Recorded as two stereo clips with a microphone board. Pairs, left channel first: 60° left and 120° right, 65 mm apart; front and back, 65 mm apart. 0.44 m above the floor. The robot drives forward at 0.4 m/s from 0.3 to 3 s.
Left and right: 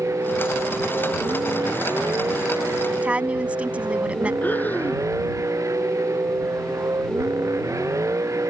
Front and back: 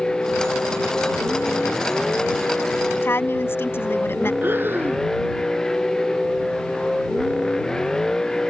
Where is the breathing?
125° left.